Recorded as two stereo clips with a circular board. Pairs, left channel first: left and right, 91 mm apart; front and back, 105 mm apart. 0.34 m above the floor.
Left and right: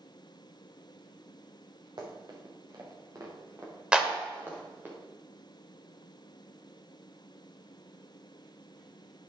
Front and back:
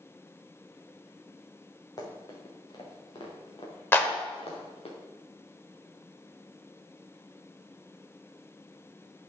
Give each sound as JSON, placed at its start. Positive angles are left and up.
{"t": 2.0, "sound": "running footsteps", "azimuth_deg": -50, "distance_m": 3.5}
{"t": 3.9, "sound": "a clap", "azimuth_deg": -25, "distance_m": 1.2}